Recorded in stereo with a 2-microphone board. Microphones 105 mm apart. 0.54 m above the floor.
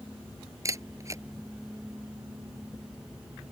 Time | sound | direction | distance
0.7 | a camera shutter | 30° right (ahead or behind) | ?